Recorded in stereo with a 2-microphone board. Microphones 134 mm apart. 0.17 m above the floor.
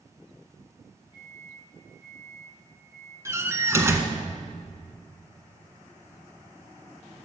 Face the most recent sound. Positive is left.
turn(degrees=-20)  # may be behind; listen again after turning